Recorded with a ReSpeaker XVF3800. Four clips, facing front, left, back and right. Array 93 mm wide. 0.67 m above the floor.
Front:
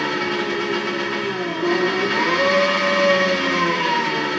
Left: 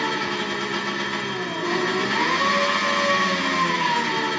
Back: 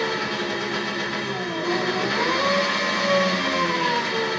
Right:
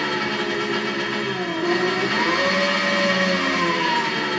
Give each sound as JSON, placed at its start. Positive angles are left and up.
{"t": 0.0, "sound": "an engine running", "azimuth_deg": -40, "distance_m": 1.3}